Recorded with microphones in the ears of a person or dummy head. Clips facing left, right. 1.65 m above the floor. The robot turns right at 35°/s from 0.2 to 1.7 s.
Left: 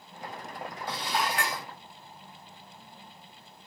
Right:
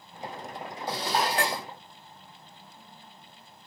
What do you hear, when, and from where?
0.9 s dishes clattering: 45° right (ahead or behind), 0.9 m; by 1.7 s 30° right (ahead or behind), 0.9 m